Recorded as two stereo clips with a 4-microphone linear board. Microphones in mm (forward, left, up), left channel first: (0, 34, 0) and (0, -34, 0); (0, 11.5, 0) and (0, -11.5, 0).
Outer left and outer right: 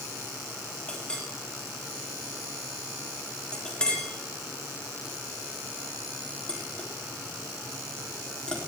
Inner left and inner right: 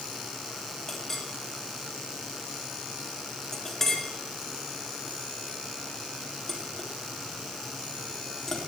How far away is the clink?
About 2.5 m.